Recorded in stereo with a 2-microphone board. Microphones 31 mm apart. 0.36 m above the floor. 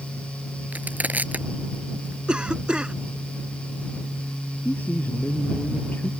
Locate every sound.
0.7 s crushing: 60° right (ahead or behind)
2.3 s a cough: 30° right (ahead or behind)
4.7 s a man speaking: 65° left (ahead or behind)